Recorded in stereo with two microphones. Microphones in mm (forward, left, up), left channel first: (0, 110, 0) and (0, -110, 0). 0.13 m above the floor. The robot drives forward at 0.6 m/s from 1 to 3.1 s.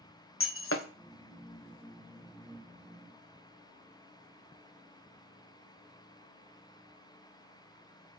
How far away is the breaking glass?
About 1.1 m.